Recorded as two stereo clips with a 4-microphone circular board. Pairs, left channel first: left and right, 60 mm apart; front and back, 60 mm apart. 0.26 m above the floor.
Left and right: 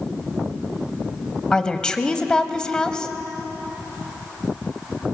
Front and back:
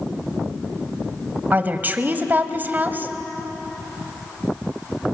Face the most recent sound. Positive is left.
turn(degrees=155)